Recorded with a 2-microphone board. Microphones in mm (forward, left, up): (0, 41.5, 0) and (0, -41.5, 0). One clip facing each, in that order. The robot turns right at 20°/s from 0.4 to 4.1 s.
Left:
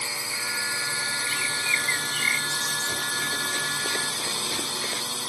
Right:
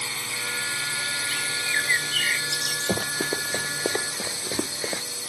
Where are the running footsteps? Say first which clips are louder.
Right 3 dB; 50° right (ahead or behind); by 5.0 s 25° right (ahead or behind).